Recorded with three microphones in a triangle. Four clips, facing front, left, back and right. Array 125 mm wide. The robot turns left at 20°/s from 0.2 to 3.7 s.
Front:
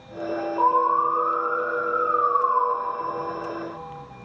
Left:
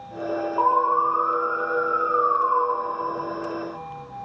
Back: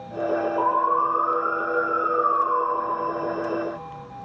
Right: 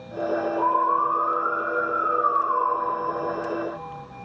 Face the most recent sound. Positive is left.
turn(degrees=35)